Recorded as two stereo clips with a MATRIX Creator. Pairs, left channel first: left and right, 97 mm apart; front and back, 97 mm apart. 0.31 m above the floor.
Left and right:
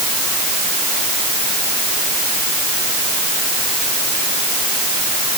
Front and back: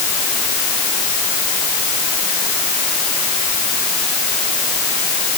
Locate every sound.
Only background noise.